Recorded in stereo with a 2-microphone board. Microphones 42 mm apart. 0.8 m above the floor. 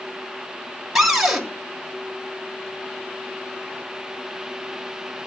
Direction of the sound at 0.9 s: 5° right (ahead or behind).